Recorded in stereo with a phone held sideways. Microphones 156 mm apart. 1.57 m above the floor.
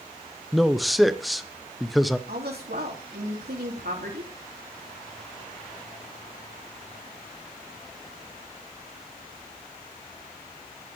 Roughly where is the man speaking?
Centre.